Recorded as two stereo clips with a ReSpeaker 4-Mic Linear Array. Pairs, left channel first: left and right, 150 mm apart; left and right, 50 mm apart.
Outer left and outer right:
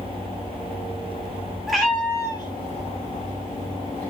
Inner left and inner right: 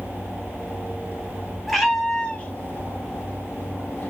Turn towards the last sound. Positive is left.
turn(degrees=55)  # may be behind; listen again after turning